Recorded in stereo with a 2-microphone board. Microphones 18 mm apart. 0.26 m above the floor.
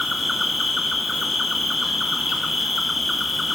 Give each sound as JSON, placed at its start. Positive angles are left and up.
{"t": 0.0, "sound": "an insect", "side_deg": -20, "distance_m": 1.1}